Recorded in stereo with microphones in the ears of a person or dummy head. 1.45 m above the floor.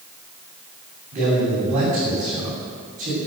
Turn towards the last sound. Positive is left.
turn(degrees=-40)  # may be behind; listen again after turning